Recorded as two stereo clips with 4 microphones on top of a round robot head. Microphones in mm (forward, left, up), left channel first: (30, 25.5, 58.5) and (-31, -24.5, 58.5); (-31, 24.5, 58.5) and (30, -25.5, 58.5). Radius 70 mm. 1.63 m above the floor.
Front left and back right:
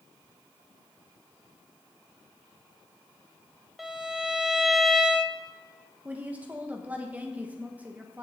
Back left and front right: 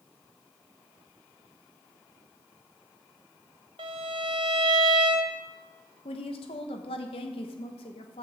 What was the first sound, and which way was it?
A violin, 55° right.